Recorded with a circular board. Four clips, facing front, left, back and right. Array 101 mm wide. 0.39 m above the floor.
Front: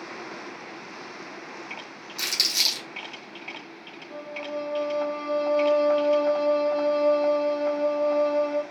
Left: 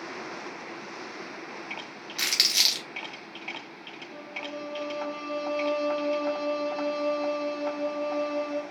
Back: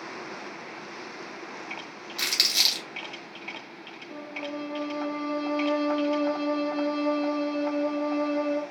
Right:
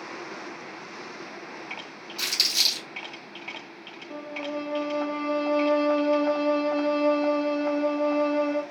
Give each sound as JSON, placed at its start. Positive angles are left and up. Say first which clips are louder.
{"t": 2.2, "sound": "crumpling", "louder": "left 1 dB, back 1 dB", "azimuth_deg": 110, "distance_m": 1.5}
{"t": 4.1, "sound": "a violin", "louder": "right 6 dB, front 2 dB", "azimuth_deg": -95, "distance_m": 0.6}